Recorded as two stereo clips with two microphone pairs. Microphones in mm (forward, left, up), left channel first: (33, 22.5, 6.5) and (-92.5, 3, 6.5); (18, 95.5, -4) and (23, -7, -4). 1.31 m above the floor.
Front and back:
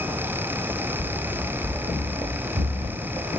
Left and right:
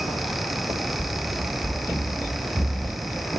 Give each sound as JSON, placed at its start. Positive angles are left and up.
{"t": 1.0, "sound": "running footsteps", "azimuth_deg": 180, "distance_m": 5.0}